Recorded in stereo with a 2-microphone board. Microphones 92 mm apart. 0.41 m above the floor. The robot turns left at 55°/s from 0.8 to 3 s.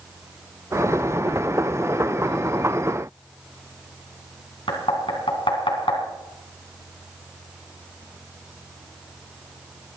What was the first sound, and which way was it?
Knocking, 70° left (ahead or behind).